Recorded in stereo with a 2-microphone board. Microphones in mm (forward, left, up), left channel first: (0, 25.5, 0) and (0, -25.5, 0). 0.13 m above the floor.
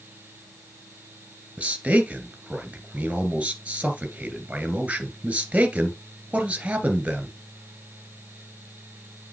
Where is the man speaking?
25° right (ahead or behind), 2 m.